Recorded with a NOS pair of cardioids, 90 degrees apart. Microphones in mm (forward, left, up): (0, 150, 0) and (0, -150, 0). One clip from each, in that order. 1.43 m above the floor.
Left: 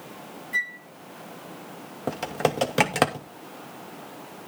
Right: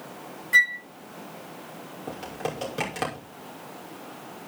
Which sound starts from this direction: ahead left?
Typing on a keyboard, at 2.1 s.